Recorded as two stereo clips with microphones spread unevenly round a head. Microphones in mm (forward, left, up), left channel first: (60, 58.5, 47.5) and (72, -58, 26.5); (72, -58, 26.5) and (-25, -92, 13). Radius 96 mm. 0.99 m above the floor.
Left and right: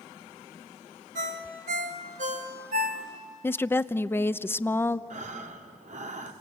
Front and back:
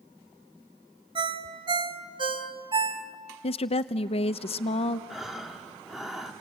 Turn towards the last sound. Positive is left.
turn(degrees=-70)